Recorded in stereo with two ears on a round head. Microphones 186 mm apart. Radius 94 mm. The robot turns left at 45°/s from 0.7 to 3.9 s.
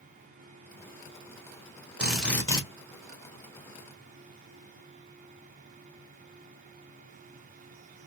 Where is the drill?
5° right (ahead or behind), 1.8 m; by 2.6 s 25° left (ahead or behind), 1.8 m.